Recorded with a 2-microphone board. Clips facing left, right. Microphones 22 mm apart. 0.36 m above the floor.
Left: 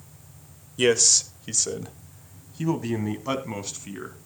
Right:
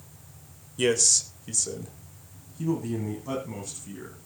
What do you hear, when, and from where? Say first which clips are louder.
0.8 s a man speaking: left 3 dB; 20° left (ahead or behind), 0.9 m; by 4.2 s 55° left (ahead or behind), 3 m